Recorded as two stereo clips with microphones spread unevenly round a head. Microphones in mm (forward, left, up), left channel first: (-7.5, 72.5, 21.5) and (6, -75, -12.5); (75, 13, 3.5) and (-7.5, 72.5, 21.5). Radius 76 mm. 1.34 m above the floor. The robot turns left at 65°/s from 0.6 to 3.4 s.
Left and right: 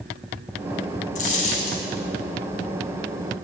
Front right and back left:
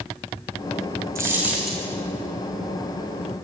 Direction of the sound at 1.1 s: 95° left.